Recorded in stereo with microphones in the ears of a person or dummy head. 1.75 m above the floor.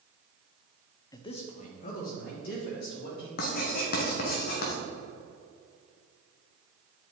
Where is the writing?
60° left (ahead or behind), 1.2 m.